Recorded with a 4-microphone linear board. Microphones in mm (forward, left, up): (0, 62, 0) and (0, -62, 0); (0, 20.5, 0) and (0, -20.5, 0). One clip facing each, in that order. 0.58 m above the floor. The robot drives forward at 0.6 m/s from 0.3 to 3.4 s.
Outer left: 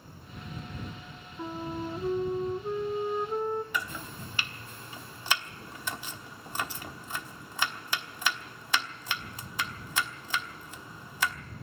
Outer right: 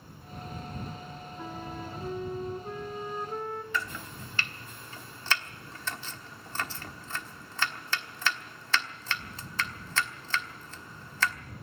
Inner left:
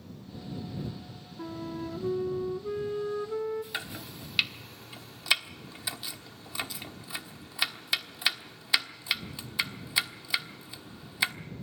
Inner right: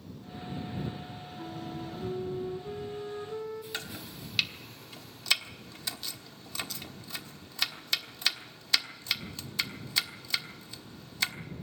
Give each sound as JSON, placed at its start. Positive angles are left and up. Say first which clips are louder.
{"t": 1.4, "sound": "a flute", "louder": "outer left 6 dB, inner left 4 dB", "side_deg": 30, "distance_m": 0.7}
{"t": 3.7, "sound": "chopping", "louder": "even, inner left 2 dB", "side_deg": 15, "distance_m": 1.1}